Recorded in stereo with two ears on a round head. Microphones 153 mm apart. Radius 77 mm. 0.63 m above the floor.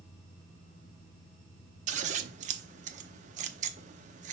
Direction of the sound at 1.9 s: 45° right (ahead or behind).